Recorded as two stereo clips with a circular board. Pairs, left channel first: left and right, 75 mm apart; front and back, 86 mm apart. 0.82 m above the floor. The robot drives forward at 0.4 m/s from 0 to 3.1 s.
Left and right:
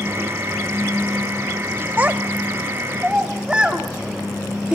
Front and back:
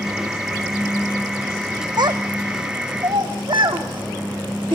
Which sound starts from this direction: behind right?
A child speaking, at 2.0 s.